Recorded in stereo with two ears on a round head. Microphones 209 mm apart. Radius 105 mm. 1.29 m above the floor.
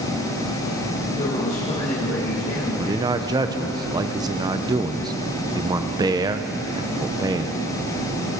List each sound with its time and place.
1.1 s a man speaking: 30° left (ahead or behind), 4 m
2.8 s a man speaking: 15° right (ahead or behind), 0.6 m